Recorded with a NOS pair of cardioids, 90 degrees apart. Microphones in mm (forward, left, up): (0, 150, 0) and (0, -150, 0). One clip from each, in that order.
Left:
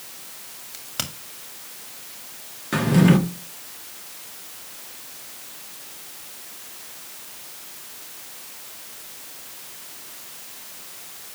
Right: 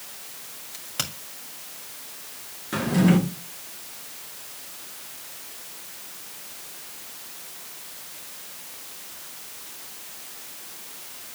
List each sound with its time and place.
0.7 s a crack: 10° left, 2.5 m
2.7 s a drawer: 30° left, 1.8 m